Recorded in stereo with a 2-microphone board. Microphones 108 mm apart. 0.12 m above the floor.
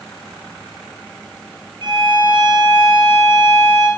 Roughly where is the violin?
Right.